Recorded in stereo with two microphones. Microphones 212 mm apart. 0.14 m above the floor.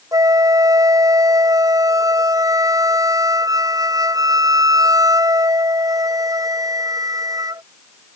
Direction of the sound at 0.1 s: 15° right (ahead or behind).